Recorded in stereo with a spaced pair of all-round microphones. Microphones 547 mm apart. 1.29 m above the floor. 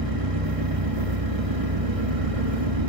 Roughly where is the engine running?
Right.